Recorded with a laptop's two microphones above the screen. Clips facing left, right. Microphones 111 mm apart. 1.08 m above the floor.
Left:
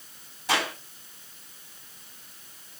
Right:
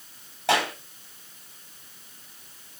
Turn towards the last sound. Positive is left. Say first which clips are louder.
# right 4 dB
turn(degrees=-75)  # may be behind; listen again after turning